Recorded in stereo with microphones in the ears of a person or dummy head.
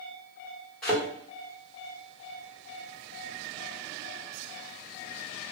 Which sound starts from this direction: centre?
A thud, at 0.8 s.